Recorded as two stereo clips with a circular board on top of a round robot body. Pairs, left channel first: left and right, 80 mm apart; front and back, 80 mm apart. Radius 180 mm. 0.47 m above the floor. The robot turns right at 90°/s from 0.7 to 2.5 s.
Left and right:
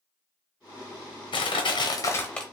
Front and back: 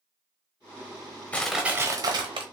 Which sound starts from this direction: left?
Crushing, at 1.3 s.